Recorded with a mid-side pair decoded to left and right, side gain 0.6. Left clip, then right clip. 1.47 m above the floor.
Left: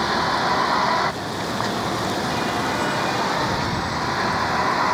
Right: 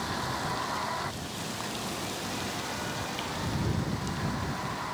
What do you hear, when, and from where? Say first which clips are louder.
0.0 s a vehicle: left 12 dB; 55° left; by 5.0 s 60° left